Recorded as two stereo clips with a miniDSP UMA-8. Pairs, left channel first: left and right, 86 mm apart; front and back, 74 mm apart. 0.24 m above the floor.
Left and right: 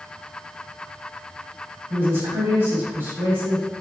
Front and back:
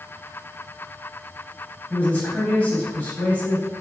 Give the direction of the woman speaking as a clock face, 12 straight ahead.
2 o'clock.